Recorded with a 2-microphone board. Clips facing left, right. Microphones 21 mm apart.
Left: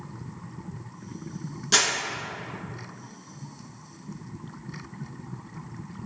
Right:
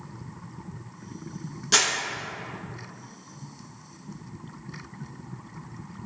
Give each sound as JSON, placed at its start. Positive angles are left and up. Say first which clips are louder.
{"t": 1.7, "sound": "crumpling", "louder": "even", "side_deg": -5, "distance_m": 0.8}